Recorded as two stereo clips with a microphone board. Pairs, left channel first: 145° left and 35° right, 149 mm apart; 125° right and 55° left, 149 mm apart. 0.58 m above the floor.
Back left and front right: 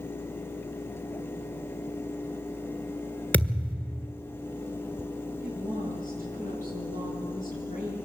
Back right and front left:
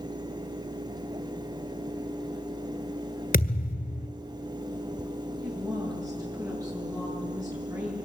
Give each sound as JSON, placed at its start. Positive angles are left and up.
{"t": 3.3, "sound": "a thud", "azimuth_deg": -135, "distance_m": 1.7}
{"t": 5.4, "sound": "a woman speaking", "azimuth_deg": 125, "distance_m": 9.5}